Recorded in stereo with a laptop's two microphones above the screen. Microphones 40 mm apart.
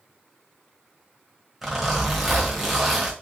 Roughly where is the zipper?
Centre.